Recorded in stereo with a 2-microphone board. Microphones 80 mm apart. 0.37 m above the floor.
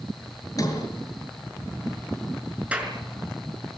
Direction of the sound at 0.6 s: 45° left (ahead or behind).